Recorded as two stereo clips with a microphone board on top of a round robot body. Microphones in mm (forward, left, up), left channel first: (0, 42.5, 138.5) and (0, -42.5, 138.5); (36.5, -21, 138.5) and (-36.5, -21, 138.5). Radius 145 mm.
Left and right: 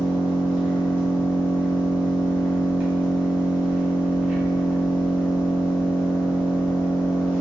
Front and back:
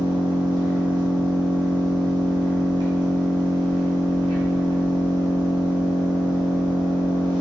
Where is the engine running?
165° right, 1.1 m.